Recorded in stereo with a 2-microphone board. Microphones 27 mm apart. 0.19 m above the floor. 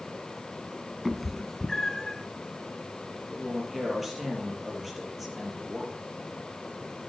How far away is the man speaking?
About 4 m.